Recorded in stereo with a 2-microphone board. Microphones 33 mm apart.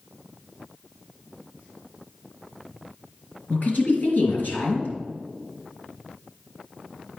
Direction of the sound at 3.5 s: 55° left (ahead or behind).